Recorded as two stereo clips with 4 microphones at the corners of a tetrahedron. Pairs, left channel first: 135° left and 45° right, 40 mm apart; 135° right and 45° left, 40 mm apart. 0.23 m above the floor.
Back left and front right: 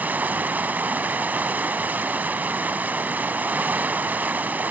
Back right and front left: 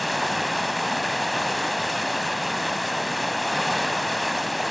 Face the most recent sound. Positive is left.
turn(degrees=-45)